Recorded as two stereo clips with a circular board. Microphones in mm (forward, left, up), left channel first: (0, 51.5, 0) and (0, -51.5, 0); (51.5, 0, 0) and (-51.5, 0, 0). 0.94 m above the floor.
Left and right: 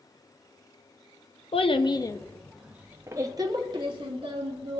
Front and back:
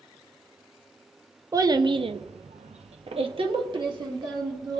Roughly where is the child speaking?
Behind left.